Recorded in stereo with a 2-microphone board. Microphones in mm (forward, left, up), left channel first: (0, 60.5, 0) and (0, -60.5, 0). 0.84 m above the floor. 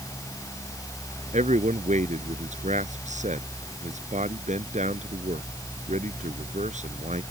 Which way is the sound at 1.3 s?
80° right.